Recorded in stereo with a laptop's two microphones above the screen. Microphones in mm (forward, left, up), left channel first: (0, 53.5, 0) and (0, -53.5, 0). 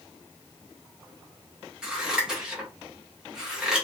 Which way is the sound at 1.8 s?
5° right (ahead or behind).